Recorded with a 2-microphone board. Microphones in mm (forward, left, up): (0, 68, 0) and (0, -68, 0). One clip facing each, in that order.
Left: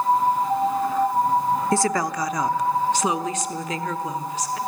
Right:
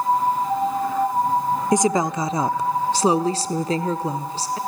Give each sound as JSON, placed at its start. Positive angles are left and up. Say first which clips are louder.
{"t": 1.7, "sound": "a woman speaking", "louder": "right 3 dB", "side_deg": -15, "distance_m": 0.8}